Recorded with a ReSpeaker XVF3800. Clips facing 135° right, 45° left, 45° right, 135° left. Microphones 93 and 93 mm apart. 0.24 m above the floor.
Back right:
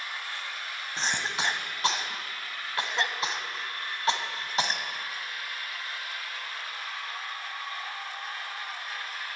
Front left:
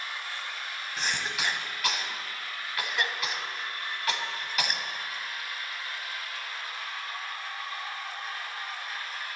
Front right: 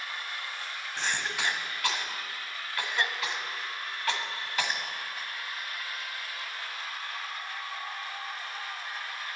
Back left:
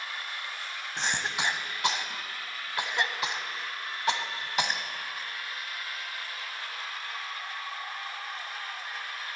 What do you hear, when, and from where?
1.0 s a cough: 170° right, 1.1 m